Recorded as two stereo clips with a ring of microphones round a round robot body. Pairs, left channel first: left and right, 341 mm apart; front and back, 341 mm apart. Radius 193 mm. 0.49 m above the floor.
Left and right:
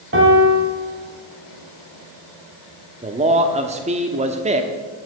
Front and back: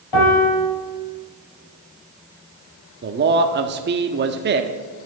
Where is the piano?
35° right, 4.5 m.